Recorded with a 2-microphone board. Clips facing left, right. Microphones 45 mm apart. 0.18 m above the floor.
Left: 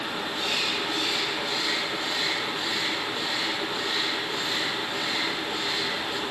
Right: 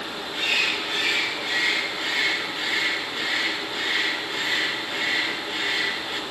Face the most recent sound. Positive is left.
turn(degrees=-45)  # may be behind; listen again after turning